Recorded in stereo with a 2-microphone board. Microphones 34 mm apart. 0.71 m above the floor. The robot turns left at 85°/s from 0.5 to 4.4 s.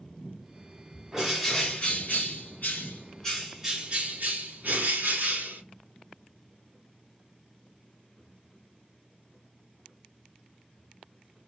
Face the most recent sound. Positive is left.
turn(degrees=-80)